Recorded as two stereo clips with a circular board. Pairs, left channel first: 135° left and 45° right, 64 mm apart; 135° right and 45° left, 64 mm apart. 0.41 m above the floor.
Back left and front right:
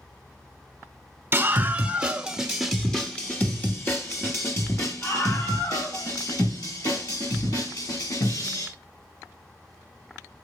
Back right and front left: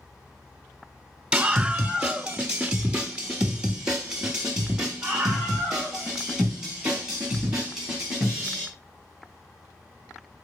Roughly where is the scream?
Ahead right.